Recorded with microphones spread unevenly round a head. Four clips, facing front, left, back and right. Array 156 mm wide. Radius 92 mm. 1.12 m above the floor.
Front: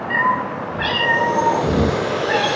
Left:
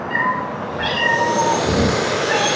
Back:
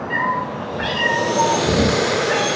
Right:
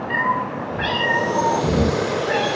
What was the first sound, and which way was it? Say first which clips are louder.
A cat meowing: even, front 3 dB; 100° right.